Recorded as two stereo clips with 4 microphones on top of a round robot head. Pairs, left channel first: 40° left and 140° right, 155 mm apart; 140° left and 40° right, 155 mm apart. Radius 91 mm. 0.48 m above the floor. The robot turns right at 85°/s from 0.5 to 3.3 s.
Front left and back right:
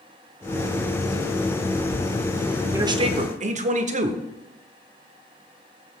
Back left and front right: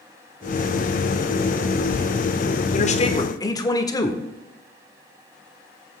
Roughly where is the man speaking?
Behind left.